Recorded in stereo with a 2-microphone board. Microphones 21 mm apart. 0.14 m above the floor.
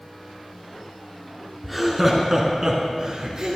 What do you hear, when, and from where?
1.6 s laughter: 5° right (ahead or behind), 1.5 m; by 3.6 s 40° right (ahead or behind), 1.9 m